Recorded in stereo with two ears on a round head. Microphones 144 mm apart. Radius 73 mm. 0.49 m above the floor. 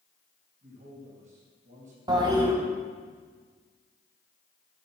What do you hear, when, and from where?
0.6 s a man speaking: 55° right (ahead or behind), 3.5 m
2.1 s a toilet flushing: 30° right (ahead or behind), 1.3 m